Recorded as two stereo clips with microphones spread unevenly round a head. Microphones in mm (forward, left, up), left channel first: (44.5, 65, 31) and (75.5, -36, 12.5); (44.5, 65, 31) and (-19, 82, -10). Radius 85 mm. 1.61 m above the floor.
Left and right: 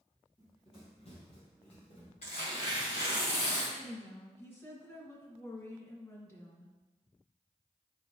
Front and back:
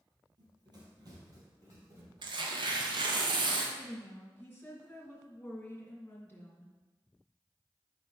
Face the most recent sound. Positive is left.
turn(degrees=45)